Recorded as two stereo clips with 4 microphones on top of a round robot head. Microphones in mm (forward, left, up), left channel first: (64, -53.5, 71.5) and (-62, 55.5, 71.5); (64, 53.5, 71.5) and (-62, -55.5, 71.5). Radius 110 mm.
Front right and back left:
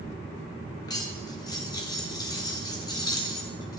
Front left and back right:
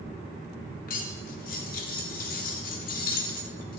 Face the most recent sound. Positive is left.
turn(degrees=20)